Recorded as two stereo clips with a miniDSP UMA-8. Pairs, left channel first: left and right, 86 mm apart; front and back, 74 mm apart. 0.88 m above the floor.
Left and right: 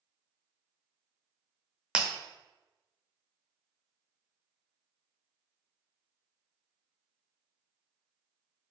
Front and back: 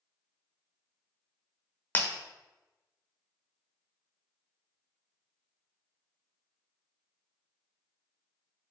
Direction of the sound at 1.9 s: 20° right.